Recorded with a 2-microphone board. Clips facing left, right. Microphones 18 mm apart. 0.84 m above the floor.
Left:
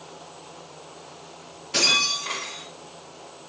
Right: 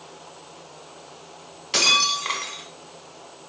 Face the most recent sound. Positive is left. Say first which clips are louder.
# right 2 dB
turn(degrees=-75)  # may be behind; listen again after turning